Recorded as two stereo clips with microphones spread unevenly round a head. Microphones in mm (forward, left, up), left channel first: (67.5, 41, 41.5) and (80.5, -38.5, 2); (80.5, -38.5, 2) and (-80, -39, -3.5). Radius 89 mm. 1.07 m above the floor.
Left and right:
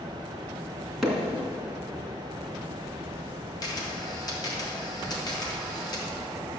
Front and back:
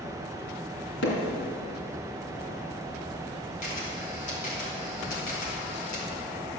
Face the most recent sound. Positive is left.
turn(degrees=55)